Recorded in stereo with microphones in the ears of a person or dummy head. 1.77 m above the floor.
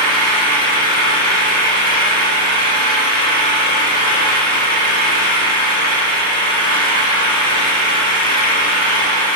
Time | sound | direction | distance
0.0 | an engine running | 45° left (ahead or behind) | 5 m